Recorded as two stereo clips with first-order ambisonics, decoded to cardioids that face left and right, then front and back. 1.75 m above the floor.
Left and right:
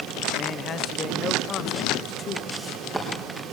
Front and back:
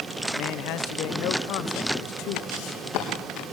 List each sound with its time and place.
0.4 s a man speaking: 30° left, 1.1 m
2.5 s footsteps: straight ahead, 4 m